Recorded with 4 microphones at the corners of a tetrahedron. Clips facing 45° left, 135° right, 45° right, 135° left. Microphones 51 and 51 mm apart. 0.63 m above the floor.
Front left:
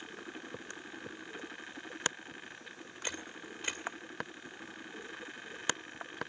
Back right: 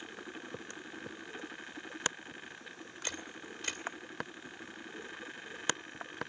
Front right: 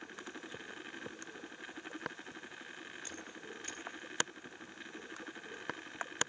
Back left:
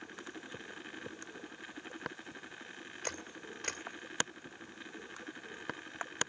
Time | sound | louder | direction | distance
3.0 | a camera shutter | front left 1 dB, back left 4 dB | 115° left | 2 m